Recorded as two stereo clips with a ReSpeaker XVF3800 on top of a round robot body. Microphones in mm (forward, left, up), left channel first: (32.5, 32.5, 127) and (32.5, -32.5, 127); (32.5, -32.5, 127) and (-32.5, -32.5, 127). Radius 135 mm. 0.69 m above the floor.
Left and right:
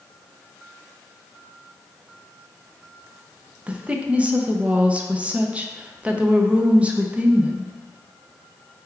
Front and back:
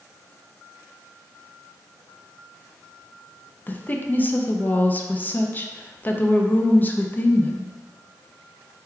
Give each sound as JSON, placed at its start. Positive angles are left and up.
{"t": 3.7, "sound": "a woman speaking", "azimuth_deg": -35, "distance_m": 0.6}